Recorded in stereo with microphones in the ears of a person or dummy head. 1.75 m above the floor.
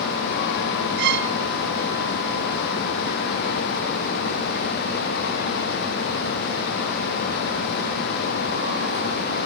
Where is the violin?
60° right (ahead or behind), 0.7 m.